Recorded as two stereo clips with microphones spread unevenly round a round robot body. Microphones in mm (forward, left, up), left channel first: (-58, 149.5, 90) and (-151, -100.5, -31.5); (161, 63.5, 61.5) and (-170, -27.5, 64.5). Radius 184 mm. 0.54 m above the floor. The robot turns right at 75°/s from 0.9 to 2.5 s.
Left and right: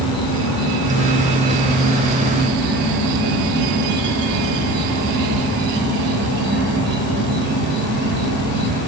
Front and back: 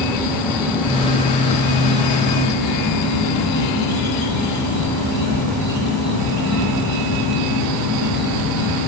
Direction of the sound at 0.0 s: 110° left.